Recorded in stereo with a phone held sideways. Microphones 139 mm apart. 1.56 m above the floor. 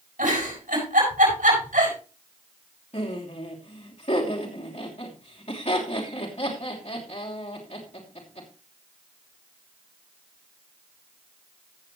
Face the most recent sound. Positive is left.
turn(degrees=50)  # may be behind; listen again after turning